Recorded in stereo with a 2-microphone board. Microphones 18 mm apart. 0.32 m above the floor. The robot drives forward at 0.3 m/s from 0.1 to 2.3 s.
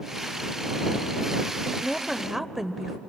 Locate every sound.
1.6 s a woman speaking: 20° right (ahead or behind), 0.9 m